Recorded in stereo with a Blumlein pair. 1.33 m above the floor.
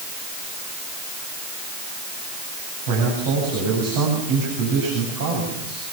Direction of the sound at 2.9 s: 55° right.